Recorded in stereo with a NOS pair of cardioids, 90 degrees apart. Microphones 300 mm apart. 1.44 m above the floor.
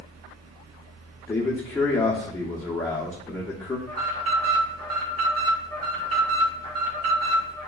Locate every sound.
0.0 s a fan: 55° right, 0.8 m
1.3 s a man speaking: 10° left, 0.7 m
3.9 s an alarm: 55° right, 1.3 m